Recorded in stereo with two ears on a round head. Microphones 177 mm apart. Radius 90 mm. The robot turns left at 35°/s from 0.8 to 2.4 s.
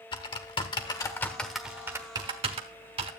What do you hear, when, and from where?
0.1 s typing on a keyboard: 25° left (ahead or behind), 1.1 m; by 3.1 s 30° right (ahead or behind), 1.1 m